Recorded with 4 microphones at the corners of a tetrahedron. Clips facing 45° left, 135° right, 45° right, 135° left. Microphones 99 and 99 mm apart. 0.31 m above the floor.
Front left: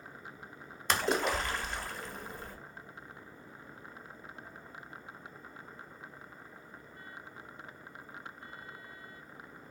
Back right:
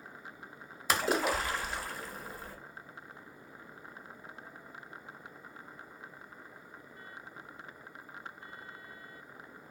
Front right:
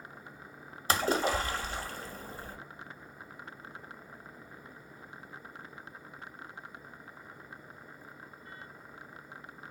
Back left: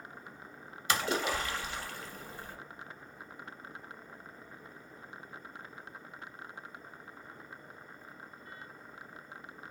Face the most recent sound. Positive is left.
turn(degrees=-50)